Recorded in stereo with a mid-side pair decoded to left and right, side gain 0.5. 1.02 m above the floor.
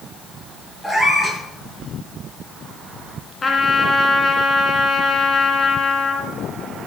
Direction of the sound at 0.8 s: 15° left.